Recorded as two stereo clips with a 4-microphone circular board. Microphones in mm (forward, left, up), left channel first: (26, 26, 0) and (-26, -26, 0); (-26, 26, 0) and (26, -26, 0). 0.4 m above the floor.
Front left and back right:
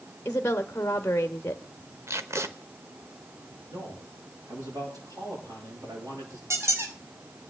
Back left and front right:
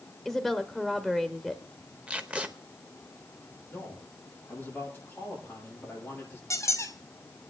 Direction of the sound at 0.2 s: 40° left.